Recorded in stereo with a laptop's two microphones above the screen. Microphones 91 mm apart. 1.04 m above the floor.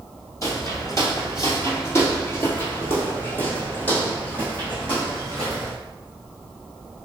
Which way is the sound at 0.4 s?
35° left (ahead or behind).